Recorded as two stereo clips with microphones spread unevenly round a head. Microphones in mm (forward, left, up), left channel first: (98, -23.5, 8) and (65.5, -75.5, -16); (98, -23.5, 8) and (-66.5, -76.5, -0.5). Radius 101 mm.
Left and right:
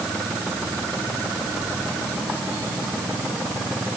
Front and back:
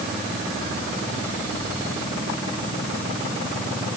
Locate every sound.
Only background noise.